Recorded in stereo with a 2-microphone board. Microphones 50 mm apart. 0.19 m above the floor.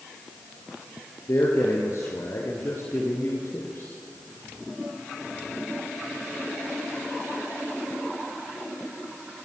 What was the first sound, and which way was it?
A man speaking, 70° left (ahead or behind).